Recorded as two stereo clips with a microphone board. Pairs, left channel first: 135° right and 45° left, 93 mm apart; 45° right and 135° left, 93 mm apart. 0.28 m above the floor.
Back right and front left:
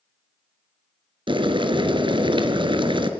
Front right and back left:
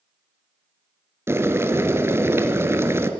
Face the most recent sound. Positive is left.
turn(degrees=75)